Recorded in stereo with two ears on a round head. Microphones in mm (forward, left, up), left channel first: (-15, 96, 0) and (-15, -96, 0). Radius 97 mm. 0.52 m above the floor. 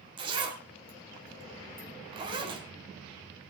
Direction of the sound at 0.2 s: 25° right (ahead or behind).